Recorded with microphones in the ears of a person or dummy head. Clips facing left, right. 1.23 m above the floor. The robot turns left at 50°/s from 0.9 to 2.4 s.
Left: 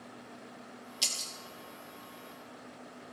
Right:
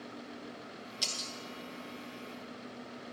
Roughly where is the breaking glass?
Centre.